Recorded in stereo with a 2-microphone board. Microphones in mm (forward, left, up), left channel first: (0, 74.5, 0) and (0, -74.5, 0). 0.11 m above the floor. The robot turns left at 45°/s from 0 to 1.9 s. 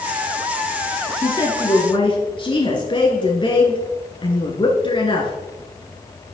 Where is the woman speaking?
135° left, 1.4 m; by 5.3 s 105° left, 1.4 m.